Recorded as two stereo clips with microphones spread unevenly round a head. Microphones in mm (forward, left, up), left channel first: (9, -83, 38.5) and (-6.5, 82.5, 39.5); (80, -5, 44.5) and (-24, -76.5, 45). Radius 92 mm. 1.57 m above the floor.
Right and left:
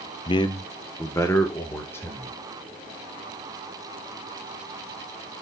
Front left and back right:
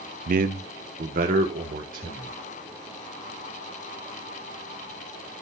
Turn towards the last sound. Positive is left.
turn(degrees=-160)